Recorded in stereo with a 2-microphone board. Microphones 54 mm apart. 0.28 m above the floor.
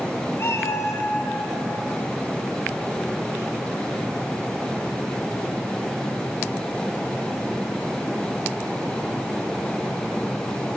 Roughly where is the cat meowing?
Left.